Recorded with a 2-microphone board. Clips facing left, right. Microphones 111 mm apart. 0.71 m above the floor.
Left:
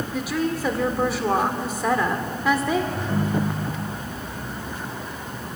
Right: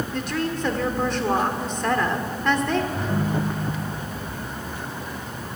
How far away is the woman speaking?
About 1.6 m.